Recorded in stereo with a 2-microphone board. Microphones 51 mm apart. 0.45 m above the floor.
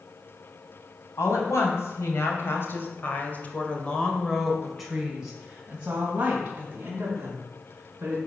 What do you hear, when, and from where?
1.2 s a woman speaking: 70° left (ahead or behind), 3 m; by 8.2 s 45° right (ahead or behind), 4.5 m